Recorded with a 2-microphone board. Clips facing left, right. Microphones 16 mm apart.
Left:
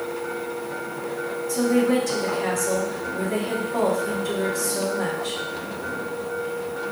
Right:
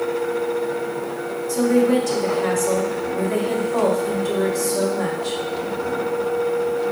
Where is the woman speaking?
15° right (ahead or behind), 2 m.